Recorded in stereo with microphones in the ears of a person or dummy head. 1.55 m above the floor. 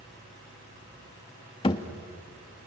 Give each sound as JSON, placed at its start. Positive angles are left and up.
{"t": 1.6, "sound": "a thud", "side_deg": 25, "distance_m": 1.0}